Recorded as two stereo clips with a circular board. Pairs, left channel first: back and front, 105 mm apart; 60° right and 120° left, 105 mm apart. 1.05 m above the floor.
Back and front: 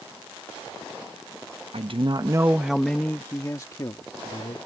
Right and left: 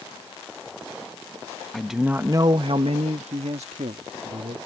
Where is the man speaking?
25° left; by 4.7 s 135° left.